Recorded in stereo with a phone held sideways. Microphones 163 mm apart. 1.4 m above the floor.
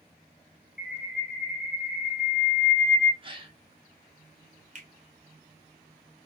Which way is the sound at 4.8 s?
50° right (ahead or behind).